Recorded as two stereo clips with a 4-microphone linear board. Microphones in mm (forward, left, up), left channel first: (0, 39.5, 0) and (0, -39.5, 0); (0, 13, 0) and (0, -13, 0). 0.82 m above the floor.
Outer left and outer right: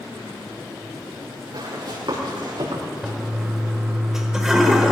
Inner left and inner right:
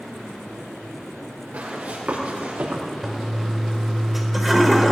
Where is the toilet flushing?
5° right (ahead or behind), 1.6 m.